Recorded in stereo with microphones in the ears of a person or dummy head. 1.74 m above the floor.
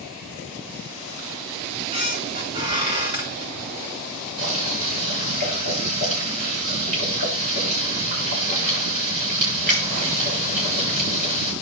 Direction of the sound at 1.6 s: 25° right (ahead or behind).